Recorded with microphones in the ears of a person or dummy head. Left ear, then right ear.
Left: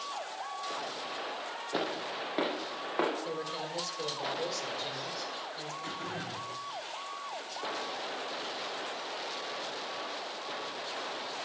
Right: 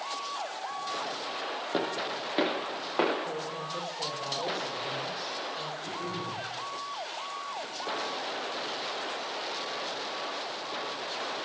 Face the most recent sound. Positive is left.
turn(degrees=70)  # may be behind; listen again after turning